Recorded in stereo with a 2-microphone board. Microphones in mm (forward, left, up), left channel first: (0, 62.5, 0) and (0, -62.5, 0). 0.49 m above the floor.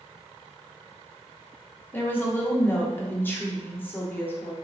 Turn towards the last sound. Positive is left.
turn(degrees=15)  # may be behind; listen again after turning